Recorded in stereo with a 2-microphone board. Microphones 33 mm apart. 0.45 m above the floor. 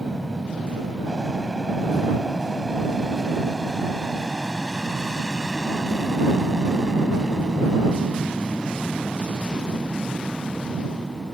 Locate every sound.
0.0 s an aircraft: 5° right (ahead or behind); by 11.3 s 20° right (ahead or behind)